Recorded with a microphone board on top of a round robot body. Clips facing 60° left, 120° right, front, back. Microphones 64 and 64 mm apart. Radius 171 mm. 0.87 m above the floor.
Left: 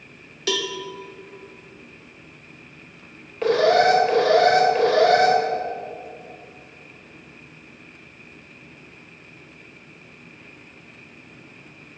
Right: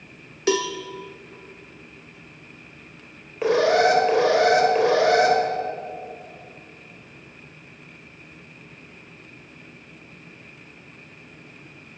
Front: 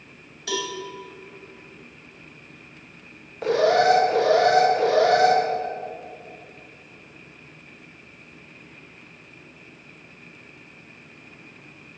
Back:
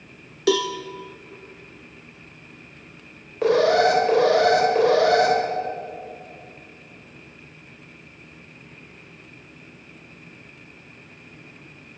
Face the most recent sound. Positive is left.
turn(degrees=160)